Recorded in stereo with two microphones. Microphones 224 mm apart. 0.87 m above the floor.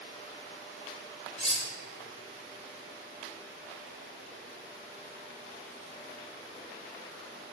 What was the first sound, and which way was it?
Cutlery clinking, 30° left (ahead or behind).